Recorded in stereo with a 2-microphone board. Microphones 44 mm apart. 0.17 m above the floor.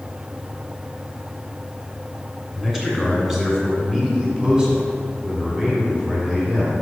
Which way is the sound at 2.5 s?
5° right (ahead or behind).